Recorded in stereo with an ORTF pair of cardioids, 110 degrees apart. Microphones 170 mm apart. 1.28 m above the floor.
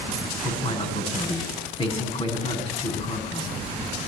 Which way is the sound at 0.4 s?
35° left.